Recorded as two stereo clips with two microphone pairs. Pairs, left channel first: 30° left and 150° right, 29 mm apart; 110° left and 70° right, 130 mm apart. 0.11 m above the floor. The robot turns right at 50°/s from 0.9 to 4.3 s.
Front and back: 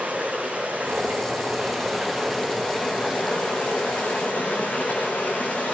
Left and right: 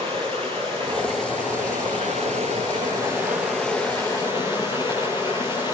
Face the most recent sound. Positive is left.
turn(degrees=60)